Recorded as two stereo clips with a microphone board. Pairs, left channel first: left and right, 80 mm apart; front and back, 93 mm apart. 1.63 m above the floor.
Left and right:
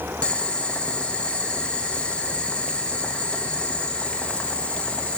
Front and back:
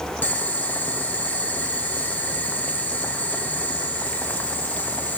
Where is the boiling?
35° left, 0.8 m.